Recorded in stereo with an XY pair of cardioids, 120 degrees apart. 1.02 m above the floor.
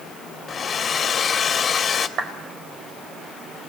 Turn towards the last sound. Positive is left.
turn(degrees=-55)